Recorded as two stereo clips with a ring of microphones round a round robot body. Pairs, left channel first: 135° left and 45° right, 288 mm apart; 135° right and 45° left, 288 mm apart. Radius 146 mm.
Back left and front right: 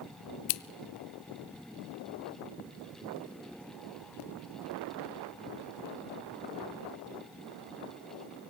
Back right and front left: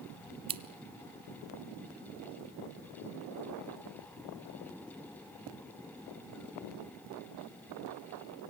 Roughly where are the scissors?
Behind left.